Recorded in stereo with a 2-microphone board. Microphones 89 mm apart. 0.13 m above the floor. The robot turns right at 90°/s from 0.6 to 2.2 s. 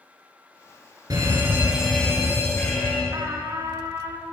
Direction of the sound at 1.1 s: 70° right.